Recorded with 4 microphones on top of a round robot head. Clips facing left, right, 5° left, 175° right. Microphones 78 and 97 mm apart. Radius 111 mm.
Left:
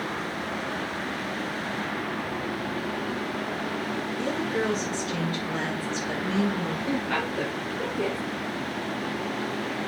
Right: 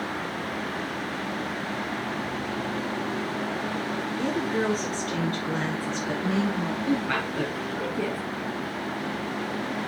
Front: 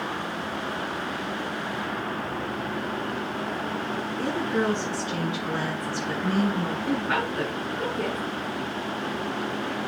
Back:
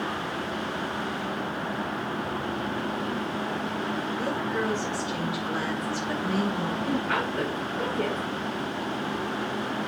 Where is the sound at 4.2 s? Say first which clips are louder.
Right 1 dB, front 5 dB; 50° right, 7.5 m; by 6.8 s 45° right, 6.5 m.